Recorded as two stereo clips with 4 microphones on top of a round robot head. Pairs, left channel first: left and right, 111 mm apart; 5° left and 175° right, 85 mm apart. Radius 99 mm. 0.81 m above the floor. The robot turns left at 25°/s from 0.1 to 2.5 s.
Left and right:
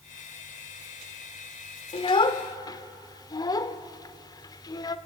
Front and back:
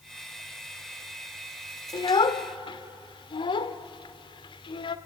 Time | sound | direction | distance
1.9 | a child speaking | 50° left | 1.2 m